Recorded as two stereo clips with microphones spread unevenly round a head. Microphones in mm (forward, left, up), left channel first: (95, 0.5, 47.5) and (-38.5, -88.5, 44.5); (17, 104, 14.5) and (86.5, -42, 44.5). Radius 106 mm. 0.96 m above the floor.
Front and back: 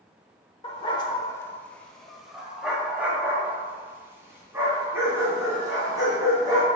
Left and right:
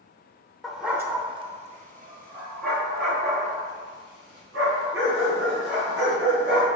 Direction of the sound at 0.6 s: 15° left.